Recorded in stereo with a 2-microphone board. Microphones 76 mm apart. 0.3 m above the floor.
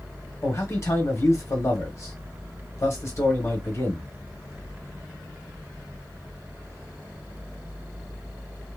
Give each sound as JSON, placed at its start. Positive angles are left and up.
{"t": 0.4, "sound": "a man speaking", "side_deg": 35, "distance_m": 1.3}